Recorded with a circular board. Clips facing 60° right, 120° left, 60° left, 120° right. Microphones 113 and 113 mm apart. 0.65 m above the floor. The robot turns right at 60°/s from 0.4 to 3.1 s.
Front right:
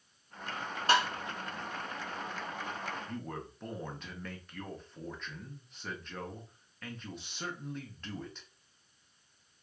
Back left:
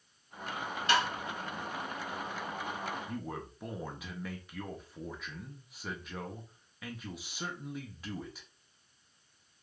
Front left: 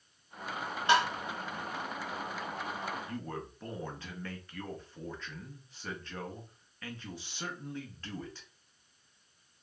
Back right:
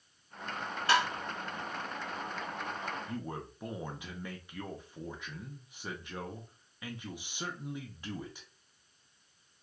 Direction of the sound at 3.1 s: 170° right.